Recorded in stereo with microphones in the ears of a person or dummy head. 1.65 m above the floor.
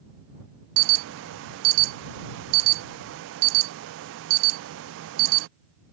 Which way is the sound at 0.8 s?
75° right (ahead or behind).